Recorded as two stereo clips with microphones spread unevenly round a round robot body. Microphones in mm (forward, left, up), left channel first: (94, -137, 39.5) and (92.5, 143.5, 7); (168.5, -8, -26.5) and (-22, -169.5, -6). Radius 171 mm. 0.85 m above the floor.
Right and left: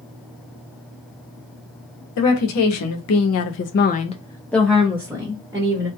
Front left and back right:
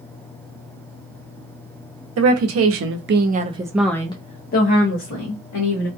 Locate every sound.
2.2 s a woman speaking: 125° right, 1.0 m; by 5.9 s 20° left, 1.3 m